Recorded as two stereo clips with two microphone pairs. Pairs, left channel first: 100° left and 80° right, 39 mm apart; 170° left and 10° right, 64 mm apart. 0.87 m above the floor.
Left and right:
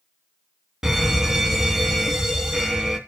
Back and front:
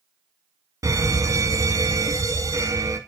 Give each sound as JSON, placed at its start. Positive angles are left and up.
{"t": 0.8, "sound": "a fire alarm", "azimuth_deg": -5, "distance_m": 3.0}